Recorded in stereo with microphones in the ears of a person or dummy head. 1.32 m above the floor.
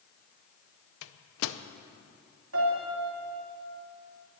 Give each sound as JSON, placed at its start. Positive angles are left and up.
{"t": 1.0, "sound": "a microwave", "side_deg": 70, "distance_m": 0.6}
{"t": 2.5, "sound": "a piano", "side_deg": -85, "distance_m": 3.0}